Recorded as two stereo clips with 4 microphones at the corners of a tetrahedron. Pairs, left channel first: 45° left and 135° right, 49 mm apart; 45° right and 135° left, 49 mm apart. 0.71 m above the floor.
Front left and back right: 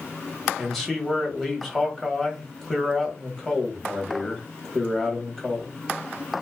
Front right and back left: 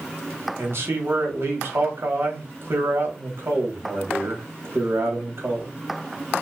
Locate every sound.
0.6 s a man speaking: 125° left, 1.0 m